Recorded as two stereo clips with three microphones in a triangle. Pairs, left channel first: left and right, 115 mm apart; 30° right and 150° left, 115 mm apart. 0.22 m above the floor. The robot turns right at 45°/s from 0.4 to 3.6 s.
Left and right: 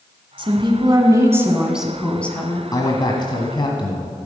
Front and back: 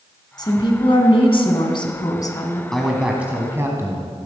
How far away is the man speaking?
About 1.3 m.